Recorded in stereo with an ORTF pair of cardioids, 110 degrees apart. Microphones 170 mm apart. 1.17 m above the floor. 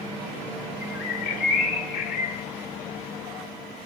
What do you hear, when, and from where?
0.8 s a bird: 65° left, 3 m